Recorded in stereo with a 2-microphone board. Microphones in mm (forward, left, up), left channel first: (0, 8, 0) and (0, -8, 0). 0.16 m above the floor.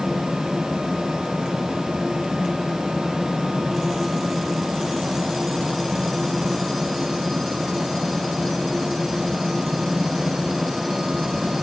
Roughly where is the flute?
I don't hear a flute.